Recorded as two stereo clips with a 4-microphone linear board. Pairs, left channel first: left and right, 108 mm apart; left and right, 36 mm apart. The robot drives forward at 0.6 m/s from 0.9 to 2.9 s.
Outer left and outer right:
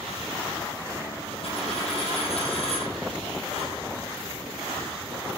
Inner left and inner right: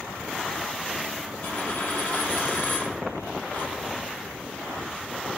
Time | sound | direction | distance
1.4 | a dropped coin | 65° left (ahead or behind) | 5.5 m